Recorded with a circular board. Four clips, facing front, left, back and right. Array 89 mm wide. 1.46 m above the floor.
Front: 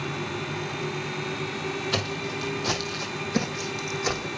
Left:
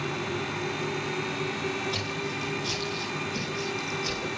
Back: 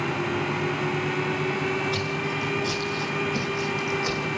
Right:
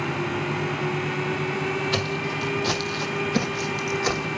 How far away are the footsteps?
About 2.5 m.